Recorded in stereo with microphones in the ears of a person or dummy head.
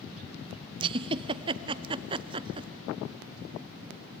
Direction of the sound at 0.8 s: 30° right (ahead or behind).